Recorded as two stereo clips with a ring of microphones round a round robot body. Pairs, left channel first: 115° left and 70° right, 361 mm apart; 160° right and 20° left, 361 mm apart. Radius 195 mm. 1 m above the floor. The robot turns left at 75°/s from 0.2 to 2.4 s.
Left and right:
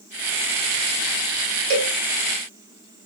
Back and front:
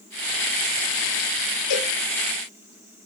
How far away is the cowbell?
About 1.1 m.